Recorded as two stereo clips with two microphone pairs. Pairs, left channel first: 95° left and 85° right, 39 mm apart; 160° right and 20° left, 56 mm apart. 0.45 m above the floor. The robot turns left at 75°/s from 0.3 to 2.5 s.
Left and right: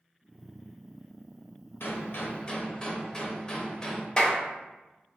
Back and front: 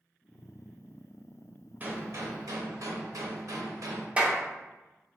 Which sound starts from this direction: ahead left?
A clap, at 4.2 s.